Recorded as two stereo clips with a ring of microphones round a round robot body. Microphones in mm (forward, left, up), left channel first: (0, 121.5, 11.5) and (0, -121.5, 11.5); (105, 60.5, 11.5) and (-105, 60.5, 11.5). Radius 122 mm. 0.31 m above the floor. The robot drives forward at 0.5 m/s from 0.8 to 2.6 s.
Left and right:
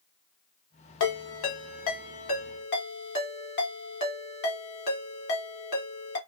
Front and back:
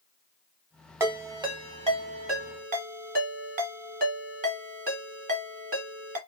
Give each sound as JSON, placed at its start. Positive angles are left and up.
{"t": 1.0, "sound": "a ringtone", "azimuth_deg": 105, "distance_m": 1.3}